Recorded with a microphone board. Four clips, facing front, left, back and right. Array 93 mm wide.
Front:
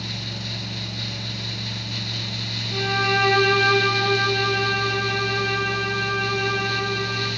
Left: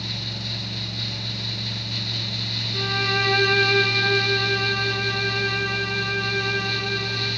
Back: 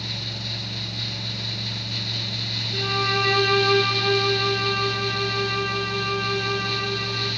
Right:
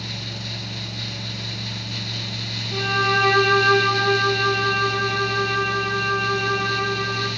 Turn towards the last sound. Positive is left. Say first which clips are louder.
# right 5 dB, front 3 dB
turn(degrees=-60)